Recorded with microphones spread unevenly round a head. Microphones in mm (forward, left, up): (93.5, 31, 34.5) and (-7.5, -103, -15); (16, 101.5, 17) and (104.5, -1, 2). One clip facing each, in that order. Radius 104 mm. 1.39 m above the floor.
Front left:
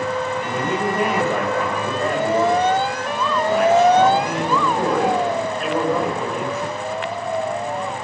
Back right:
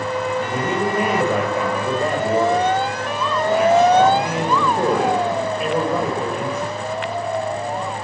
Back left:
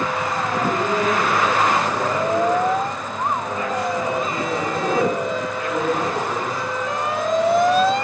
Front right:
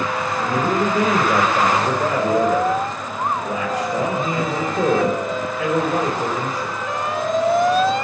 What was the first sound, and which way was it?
A man speaking, 45° right.